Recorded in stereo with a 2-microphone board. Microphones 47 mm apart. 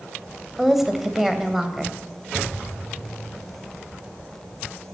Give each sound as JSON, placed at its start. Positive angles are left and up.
{"t": 0.6, "sound": "a woman speaking", "side_deg": -5, "distance_m": 2.5}